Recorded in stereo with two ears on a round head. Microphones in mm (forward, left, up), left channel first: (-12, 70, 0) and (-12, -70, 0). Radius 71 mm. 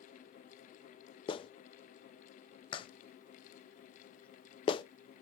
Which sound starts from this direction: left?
A clap, at 1.3 s.